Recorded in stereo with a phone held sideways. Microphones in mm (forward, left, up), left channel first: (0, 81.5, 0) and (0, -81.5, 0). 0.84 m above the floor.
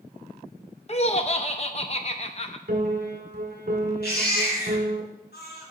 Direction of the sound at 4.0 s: 80° left.